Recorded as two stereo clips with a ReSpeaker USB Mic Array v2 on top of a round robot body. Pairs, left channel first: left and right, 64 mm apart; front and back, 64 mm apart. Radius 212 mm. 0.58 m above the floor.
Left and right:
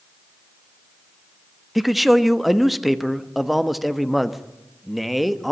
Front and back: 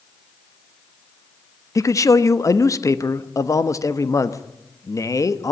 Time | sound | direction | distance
1.8 | a man speaking | straight ahead | 1.4 m